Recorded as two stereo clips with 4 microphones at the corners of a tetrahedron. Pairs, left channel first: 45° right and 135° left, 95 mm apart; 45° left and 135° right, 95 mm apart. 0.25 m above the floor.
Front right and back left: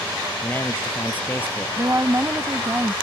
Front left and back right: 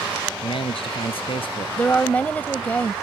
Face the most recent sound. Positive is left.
turn(degrees=105)